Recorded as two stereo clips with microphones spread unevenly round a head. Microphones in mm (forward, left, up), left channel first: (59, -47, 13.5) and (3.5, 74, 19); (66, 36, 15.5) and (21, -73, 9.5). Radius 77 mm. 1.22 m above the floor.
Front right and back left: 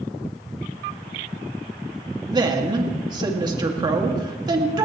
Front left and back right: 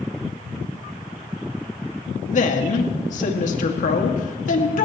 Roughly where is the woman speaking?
Ahead left.